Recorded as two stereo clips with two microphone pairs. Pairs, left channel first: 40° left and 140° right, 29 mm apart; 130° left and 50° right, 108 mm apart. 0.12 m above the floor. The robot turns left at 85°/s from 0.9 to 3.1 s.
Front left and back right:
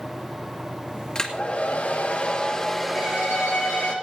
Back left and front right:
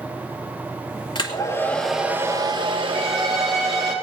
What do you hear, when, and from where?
1.1 s a hair dryer: 100° left, 2.5 m; by 4.0 s 65° right, 2.5 m
3.0 s a violin: 55° left, 7 m; by 3.9 s 45° left, 7 m